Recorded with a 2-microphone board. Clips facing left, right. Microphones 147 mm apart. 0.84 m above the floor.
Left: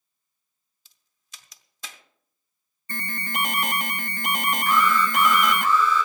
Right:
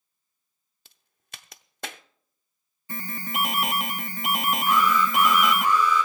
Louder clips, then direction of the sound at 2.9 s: Even; 5° right (ahead or behind).